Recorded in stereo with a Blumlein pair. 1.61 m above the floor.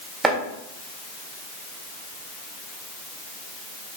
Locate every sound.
0.2 s chopping: 15° right, 1.4 m